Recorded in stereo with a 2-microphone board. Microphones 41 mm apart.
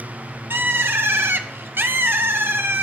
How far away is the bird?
About 0.9 m.